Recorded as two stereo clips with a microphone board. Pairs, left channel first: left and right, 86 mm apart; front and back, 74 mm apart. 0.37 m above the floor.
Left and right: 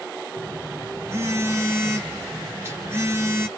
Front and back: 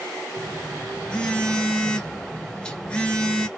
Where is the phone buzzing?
65° right, 0.6 m.